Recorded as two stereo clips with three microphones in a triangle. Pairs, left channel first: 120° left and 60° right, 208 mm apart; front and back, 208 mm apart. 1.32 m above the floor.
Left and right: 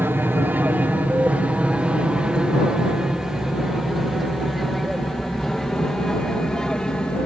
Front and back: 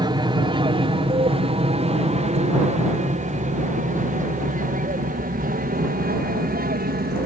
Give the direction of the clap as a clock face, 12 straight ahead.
I don't hear a clap.